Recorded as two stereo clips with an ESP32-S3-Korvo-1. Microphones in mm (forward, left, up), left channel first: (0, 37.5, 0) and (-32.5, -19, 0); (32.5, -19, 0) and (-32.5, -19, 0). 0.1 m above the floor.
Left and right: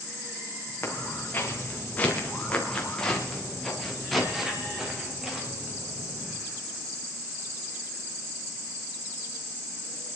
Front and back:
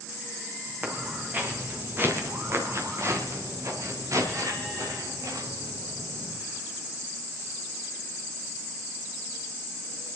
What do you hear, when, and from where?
0.8 s footsteps: 115° left, 4 m; by 6.4 s 170° left, 5 m